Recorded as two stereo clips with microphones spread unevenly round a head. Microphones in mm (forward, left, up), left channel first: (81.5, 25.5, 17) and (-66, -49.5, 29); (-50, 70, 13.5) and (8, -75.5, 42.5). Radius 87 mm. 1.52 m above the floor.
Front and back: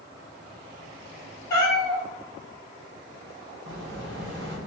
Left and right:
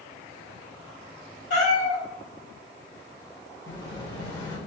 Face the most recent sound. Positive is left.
turn(degrees=180)